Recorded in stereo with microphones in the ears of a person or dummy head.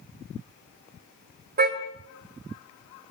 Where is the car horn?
45° right (ahead or behind), 2.5 m.